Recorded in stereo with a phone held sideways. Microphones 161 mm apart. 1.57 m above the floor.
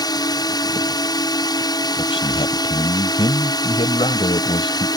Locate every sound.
0.0 s a drone: 25° left (ahead or behind)
2.0 s a man speaking: 40° left (ahead or behind)